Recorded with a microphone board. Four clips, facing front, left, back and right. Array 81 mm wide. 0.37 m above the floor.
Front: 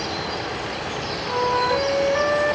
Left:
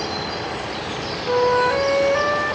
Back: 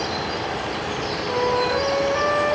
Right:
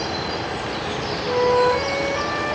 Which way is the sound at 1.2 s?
80° left.